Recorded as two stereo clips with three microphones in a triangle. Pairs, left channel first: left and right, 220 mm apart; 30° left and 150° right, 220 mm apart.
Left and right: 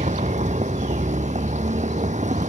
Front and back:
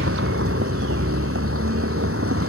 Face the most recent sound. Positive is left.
turn(degrees=-150)